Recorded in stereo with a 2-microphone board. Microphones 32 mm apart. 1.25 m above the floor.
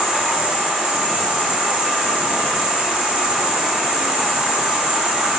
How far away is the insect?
About 1.3 m.